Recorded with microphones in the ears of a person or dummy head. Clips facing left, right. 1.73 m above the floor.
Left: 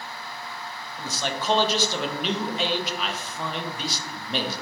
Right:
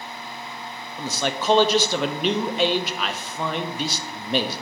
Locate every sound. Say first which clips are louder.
1.0 s a man speaking: right 4 dB; 55° right (ahead or behind), 0.8 m